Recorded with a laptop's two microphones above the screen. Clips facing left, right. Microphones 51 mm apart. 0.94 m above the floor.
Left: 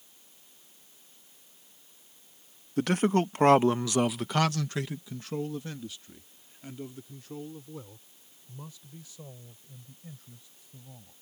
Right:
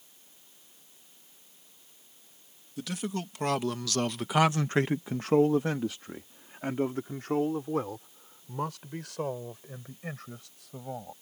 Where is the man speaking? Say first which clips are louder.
Left 10 dB; 50° left (ahead or behind); by 11.1 s 75° right (ahead or behind).